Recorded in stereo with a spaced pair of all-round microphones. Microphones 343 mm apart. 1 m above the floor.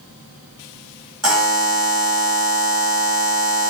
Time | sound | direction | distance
1.2 | a buzzer | 45° right (ahead or behind) | 1.9 m